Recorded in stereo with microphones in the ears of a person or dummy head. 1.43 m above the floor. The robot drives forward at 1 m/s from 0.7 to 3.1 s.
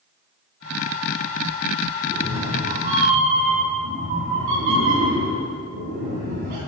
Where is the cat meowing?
45° right (ahead or behind), 3 m; by 6.6 s 55° right (ahead or behind), 2.5 m.